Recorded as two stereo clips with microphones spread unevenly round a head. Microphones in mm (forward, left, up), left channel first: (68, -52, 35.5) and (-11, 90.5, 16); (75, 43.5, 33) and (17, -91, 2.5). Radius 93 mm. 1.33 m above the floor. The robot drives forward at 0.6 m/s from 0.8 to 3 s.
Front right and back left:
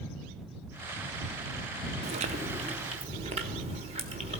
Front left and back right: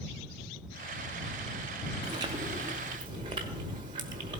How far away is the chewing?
About 0.6 m.